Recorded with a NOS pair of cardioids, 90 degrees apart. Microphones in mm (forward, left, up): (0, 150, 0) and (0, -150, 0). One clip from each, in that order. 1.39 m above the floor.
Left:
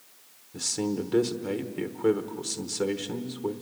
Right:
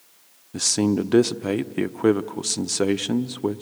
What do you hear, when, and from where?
0.5 s a man speaking: 45° right, 0.9 m